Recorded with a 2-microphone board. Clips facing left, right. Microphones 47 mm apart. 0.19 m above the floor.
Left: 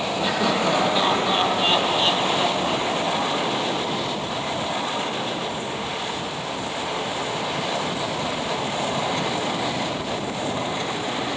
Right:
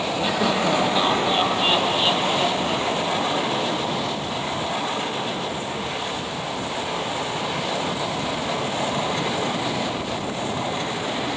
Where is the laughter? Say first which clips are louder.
Even; 5° right (ahead or behind), 7 m.